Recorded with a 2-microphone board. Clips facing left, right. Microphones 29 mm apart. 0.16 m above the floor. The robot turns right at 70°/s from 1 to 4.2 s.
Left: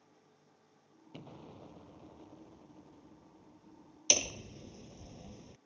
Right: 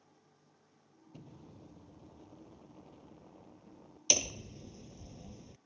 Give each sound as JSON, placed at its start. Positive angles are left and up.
{"t": 1.1, "sound": "an explosion", "azimuth_deg": 85}
{"t": 4.1, "sound": "hammering", "side_deg": 5}